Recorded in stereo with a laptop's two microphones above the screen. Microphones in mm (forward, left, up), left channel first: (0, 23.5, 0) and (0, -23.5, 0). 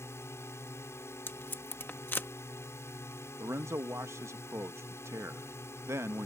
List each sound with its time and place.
0.0 s a drone: 60° left (ahead or behind)
1.3 s tape being pulled: 40° left (ahead or behind)
3.4 s a man speaking: 60° right (ahead or behind)